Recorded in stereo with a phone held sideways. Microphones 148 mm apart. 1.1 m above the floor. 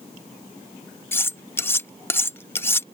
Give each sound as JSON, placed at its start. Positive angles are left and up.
{"t": 1.1, "sound": "cutlery clinking", "side_deg": 15}